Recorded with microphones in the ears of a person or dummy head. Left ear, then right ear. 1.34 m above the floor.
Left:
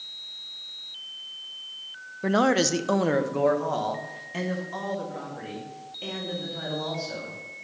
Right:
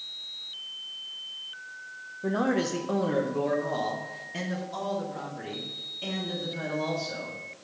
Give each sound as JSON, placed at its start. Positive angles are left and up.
{"t": 2.2, "sound": "a man speaking", "side_deg": 70, "distance_m": 0.6}